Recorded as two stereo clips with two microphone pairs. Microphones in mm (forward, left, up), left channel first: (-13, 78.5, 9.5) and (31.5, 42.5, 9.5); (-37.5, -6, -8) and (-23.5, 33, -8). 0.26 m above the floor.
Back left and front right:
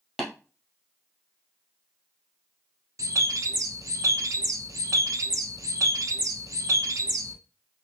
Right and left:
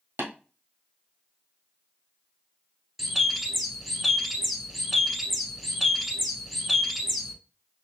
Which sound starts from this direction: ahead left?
Tapping, at 0.2 s.